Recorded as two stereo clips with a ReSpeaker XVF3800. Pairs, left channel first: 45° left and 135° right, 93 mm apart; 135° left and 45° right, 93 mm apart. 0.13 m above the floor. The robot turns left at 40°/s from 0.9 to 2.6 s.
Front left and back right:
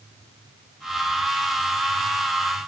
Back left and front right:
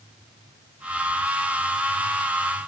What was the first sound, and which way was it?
Only background noise.